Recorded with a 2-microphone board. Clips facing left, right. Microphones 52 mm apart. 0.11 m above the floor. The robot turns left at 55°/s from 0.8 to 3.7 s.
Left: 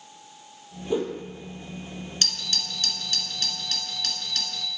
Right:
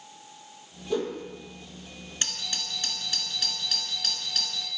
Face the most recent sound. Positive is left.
turn(degrees=0)  # may be behind; listen again after turning